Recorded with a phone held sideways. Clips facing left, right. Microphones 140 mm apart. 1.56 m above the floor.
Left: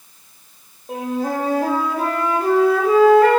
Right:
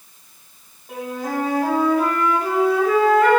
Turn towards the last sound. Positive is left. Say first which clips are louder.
# left 4 dB
turn(degrees=30)  # may be behind; listen again after turning